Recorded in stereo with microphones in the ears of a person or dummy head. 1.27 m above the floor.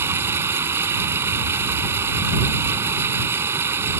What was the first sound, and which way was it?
Running water, 15° right (ahead or behind).